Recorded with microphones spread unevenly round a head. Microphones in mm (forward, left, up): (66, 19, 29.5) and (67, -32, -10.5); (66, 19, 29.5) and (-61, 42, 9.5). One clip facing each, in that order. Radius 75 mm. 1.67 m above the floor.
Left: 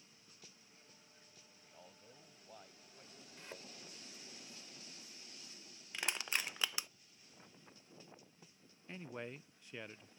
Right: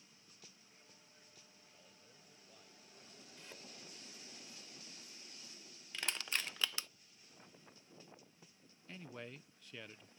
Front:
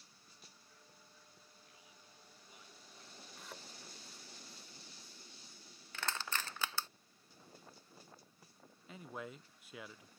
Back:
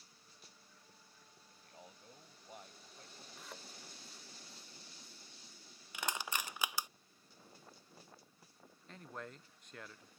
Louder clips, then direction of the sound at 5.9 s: Left 1 dB, back 1 dB; 90° left.